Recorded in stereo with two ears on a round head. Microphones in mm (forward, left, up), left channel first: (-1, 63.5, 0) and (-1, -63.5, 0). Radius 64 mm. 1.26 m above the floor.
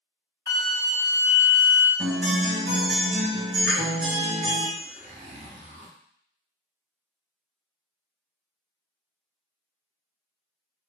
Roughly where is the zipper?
Right.